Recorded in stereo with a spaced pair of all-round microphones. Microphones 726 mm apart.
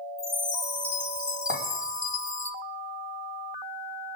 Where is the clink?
45° left (ahead or behind), 3.5 m.